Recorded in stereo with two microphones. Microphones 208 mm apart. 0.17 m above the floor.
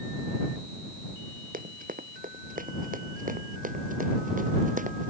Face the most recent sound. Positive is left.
turn(degrees=-40)  # may be behind; listen again after turning